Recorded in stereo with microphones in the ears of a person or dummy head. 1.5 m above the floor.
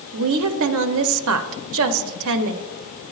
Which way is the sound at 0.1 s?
75° right (ahead or behind).